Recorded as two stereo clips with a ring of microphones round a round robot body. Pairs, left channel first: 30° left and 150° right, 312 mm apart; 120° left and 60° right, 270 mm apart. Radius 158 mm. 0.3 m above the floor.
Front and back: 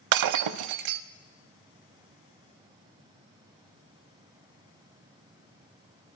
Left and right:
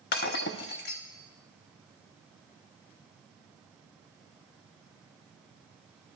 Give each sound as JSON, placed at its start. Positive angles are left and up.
{"t": 0.1, "sound": "breaking glass", "azimuth_deg": 180, "distance_m": 0.5}